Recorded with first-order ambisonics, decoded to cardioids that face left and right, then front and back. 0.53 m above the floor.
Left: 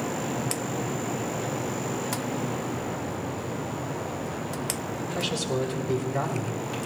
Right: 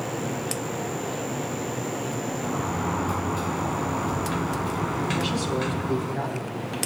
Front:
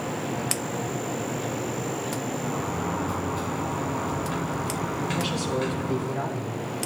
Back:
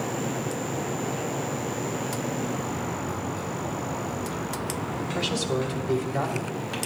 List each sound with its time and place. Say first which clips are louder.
2.4 s a sliding door: right 3 dB, front 2 dB; 70° right, 0.8 m
5.2 s a man speaking: right 1 dB, back 3 dB; 150° left, 2.5 m